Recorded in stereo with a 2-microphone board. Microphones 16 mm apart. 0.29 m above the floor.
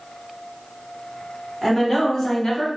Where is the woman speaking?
10° left (ahead or behind), 1.7 m; by 2.7 s 50° left (ahead or behind), 1.5 m.